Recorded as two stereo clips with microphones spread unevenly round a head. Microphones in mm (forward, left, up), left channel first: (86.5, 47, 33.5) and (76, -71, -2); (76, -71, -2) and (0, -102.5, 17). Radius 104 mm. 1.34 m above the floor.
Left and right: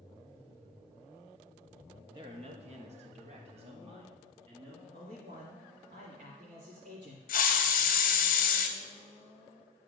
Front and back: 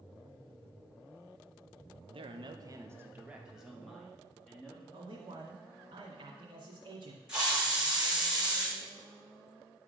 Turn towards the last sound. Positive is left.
turn(degrees=115)